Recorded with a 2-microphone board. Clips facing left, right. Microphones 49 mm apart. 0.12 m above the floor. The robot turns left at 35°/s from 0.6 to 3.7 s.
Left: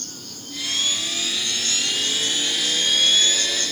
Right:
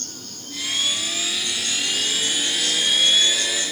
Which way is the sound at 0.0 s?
50° right.